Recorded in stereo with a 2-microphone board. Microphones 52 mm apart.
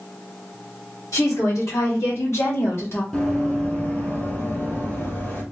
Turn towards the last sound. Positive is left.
turn(degrees=40)  # may be behind; listen again after turning